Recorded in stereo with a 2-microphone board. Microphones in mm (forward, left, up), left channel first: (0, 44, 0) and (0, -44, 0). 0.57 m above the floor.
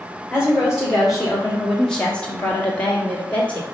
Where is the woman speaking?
5° right (ahead or behind), 3 m; by 3.6 s 15° left (ahead or behind), 2.5 m.